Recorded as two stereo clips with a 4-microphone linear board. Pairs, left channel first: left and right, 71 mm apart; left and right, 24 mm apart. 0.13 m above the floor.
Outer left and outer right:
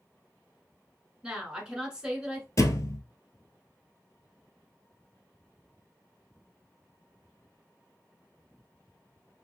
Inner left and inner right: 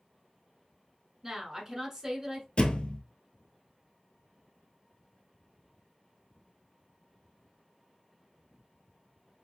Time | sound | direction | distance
1.2 | a woman speaking | 15° right (ahead or behind) | 1.1 m
2.6 | a thud | 50° left (ahead or behind) | 0.5 m